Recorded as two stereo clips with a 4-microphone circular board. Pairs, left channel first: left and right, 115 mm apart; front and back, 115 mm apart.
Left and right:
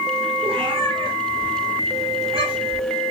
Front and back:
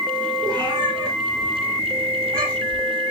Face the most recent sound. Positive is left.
turn(degrees=-135)